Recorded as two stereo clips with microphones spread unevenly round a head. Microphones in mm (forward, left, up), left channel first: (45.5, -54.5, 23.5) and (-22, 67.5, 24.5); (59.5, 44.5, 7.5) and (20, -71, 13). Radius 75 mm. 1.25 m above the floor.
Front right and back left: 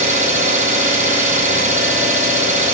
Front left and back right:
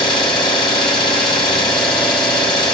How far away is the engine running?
About 0.9 m.